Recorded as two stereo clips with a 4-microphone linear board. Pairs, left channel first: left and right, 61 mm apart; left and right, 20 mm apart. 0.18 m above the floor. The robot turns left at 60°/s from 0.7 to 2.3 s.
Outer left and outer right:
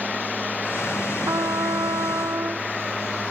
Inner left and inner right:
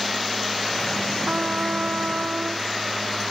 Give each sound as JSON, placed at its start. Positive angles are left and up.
{"t": 1.3, "sound": "a trumpet", "azimuth_deg": -65}